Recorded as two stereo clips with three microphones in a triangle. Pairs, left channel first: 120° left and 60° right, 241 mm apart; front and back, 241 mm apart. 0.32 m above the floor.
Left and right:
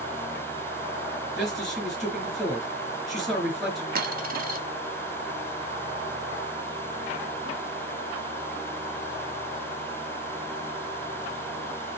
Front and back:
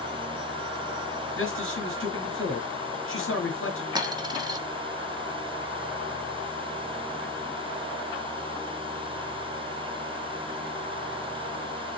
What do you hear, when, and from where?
1.4 s a man speaking: 30° left, 4.5 m
4.0 s a dropped coin: 105° right, 1.0 m